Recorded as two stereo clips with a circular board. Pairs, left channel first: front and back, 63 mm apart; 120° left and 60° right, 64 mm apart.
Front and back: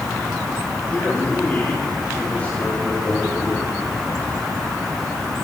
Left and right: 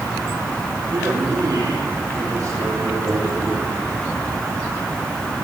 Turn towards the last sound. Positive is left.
turn(degrees=-65)